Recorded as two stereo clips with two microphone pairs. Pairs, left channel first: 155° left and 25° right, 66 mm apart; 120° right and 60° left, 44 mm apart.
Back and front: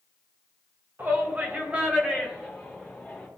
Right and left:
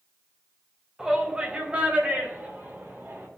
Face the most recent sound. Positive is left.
turn(degrees=70)